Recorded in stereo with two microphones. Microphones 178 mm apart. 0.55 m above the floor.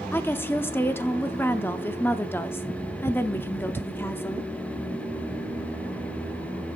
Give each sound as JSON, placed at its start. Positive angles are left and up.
{"t": 0.1, "sound": "a woman speaking", "side_deg": 10, "distance_m": 0.7}